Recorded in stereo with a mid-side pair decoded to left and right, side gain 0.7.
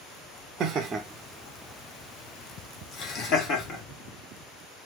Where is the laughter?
45° right, 0.5 m; by 3.8 s 50° left, 1.7 m.